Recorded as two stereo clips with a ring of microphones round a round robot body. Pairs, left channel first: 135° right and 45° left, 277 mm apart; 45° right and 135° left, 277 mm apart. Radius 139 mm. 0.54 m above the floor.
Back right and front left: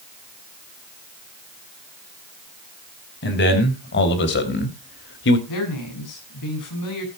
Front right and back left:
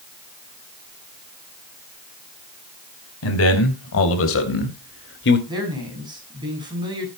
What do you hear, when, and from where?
3.2 s a man speaking: 85° right, 4 m; by 5.4 s 90° right, 1.9 m
5.5 s a man speaking: 150° right, 6.5 m